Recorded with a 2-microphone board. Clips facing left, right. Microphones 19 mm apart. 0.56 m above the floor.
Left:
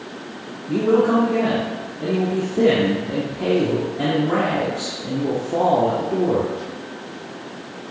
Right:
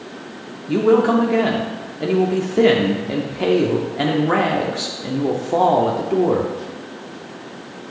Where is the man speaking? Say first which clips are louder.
Right 2 dB; 40° right (ahead or behind), 0.8 m.